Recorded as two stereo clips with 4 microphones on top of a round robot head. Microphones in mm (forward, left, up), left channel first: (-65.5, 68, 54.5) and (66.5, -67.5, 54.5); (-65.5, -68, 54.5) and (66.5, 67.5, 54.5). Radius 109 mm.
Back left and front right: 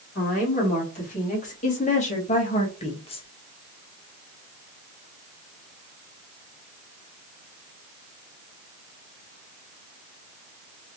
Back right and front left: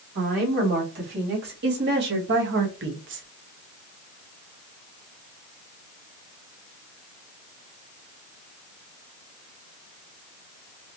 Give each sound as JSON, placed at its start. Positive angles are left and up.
{"t": 0.1, "sound": "a woman speaking", "azimuth_deg": 85, "distance_m": 3.0}